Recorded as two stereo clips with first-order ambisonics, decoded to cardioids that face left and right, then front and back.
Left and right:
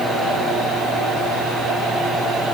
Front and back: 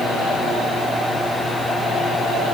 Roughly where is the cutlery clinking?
I don't hear cutlery clinking.